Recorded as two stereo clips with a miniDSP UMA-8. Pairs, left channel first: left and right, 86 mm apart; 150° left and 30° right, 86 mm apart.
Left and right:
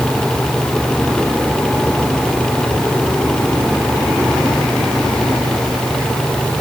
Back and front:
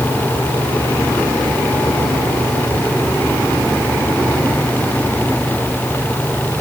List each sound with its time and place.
Only background noise.